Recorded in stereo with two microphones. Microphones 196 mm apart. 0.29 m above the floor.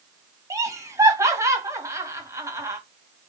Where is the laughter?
15° right (ahead or behind), 1.4 m.